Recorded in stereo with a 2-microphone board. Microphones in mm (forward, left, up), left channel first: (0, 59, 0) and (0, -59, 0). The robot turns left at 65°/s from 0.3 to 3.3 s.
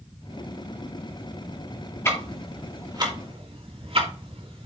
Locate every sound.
2.0 s ticking: 20° left (ahead or behind), 2.5 m; by 4.7 s 55° right (ahead or behind), 2.5 m